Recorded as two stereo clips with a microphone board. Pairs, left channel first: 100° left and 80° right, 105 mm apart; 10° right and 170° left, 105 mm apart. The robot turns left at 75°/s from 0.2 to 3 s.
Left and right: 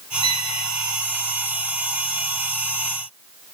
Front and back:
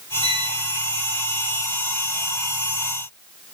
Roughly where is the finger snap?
I don't hear a finger snap.